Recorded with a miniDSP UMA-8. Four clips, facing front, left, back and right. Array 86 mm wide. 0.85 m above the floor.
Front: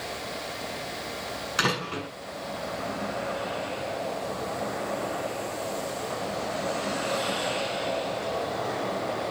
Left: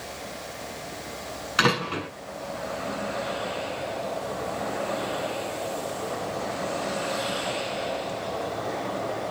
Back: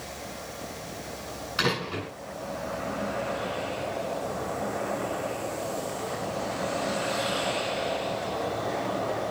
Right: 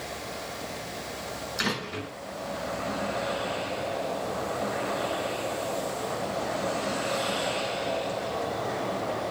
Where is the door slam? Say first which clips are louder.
Left 9 dB, even; 75° left, 8.5 m.